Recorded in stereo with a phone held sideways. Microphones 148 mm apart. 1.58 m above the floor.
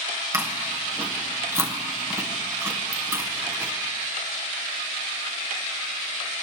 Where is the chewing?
20° right (ahead or behind), 1.4 m.